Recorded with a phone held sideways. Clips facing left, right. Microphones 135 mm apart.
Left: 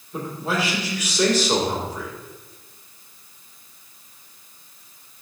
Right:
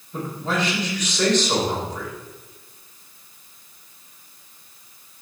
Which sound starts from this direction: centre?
A man speaking, at 0.1 s.